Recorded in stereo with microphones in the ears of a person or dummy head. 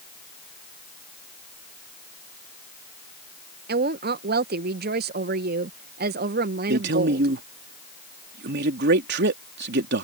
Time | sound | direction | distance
3.7 | a woman speaking | 45° right (ahead or behind) | ?
6.7 | a man speaking | 55° right (ahead or behind) | ?